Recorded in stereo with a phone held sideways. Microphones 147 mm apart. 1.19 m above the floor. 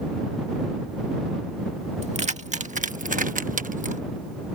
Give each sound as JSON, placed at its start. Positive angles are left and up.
{"t": 2.0, "sound": "keys jangling", "side_deg": -50}